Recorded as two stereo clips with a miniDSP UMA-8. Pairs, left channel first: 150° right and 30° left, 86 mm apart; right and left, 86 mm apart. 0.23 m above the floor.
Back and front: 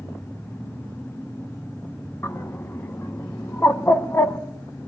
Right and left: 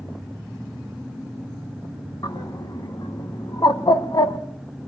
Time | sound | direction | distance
2.2 | a bird | 95° right | 0.6 m